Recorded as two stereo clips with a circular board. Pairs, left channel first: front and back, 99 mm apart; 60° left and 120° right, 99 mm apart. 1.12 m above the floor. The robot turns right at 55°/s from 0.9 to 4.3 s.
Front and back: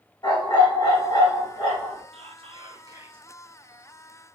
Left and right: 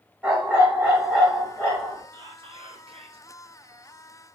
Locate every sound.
0.2 s a dog barking: 45° right, 1.8 m; by 2.0 s 15° left, 1.8 m
2.1 s whispering: 170° right, 0.5 m; by 3.3 s 105° right, 0.5 m